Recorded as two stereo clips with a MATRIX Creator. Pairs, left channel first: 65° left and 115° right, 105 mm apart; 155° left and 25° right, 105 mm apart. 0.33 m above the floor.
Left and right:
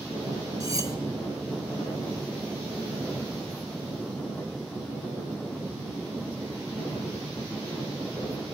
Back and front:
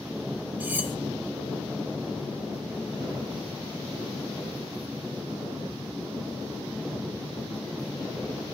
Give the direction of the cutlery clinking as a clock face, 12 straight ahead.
3 o'clock.